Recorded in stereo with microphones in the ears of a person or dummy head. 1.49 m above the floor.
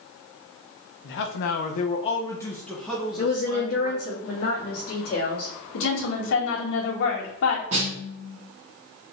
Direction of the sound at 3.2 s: 55° left (ahead or behind).